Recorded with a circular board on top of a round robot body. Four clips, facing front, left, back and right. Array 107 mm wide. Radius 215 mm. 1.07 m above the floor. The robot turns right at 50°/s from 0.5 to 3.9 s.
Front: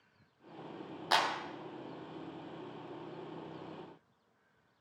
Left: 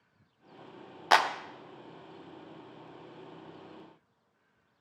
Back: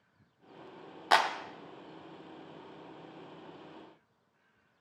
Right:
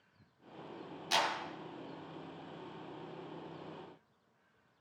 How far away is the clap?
About 0.7 m.